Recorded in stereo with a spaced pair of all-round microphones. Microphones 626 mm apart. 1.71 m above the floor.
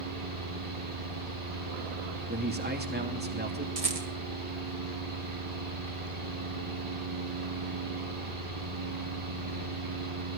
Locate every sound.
0.0 s a fan: 50° right (ahead or behind), 6 m
2.3 s a man speaking: 15° right (ahead or behind), 2.5 m
3.8 s a rattle: 65° right (ahead or behind), 1.8 m